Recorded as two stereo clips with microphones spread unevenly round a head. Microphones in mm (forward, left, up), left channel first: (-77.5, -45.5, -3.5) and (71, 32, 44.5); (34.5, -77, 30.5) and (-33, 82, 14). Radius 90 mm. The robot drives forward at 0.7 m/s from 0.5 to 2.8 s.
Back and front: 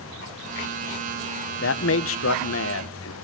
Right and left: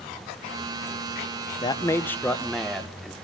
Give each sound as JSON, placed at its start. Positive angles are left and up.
{"t": 1.6, "sound": "a man speaking", "azimuth_deg": -130, "distance_m": 0.9}